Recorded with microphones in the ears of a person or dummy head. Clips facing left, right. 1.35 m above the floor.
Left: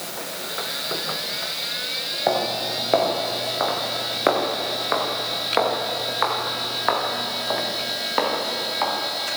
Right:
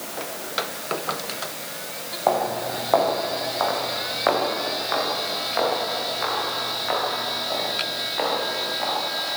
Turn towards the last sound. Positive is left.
turn(degrees=75)  # may be behind; listen again after turning